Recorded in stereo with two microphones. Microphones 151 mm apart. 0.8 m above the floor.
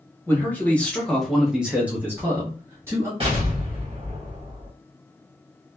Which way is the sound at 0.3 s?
15° left (ahead or behind).